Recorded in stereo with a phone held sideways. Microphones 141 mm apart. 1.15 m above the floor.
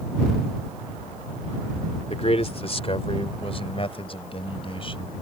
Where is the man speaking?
50° left (ahead or behind); by 5.1 s 40° left (ahead or behind).